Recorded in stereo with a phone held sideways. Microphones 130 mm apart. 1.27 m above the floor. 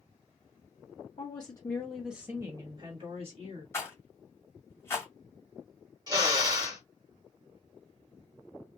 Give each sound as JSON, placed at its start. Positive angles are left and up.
{"t": 1.2, "sound": "a woman speaking", "side_deg": 35, "distance_m": 0.8}
{"t": 3.7, "sound": "a rattle", "side_deg": 20, "distance_m": 1.3}
{"t": 6.1, "sound": "a drill", "side_deg": -30, "distance_m": 1.3}